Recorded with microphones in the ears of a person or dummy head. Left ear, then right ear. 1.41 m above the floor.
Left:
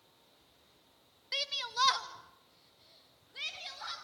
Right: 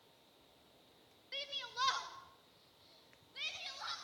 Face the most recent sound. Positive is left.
turn(degrees=5)  # may be behind; listen again after turning